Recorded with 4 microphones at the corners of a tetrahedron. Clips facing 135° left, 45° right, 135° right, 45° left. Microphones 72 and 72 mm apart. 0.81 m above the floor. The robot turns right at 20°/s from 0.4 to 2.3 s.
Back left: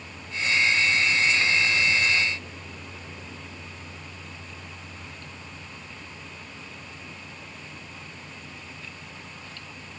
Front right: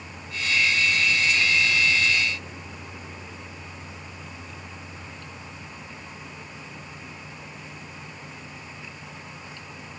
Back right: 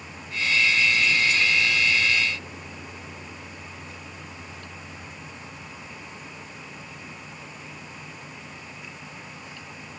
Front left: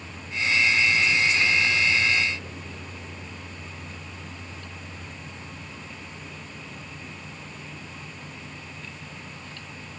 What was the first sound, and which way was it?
Only background noise.